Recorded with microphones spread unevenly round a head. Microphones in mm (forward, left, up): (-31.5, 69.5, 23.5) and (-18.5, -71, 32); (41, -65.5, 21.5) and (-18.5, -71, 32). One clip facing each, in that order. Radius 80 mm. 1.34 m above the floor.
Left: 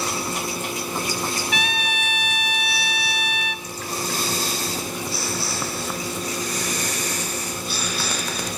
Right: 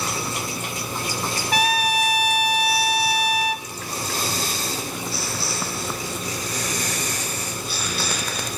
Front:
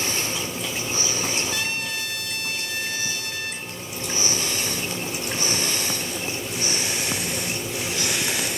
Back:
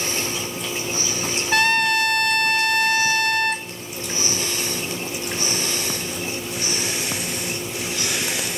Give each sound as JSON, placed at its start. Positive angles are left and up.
{"t": 1.5, "sound": "a trumpet", "azimuth_deg": -140, "distance_m": 0.8}